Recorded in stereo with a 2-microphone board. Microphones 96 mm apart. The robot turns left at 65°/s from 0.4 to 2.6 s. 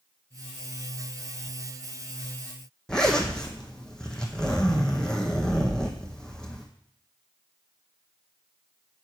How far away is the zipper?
About 1.0 m.